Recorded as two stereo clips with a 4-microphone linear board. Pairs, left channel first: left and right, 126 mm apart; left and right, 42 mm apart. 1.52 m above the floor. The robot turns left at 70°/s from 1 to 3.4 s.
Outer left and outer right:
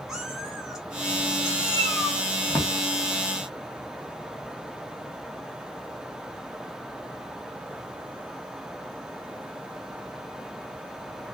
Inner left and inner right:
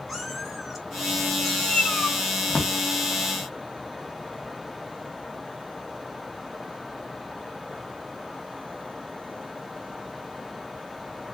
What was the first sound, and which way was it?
A cat meowing, centre (ahead or behind).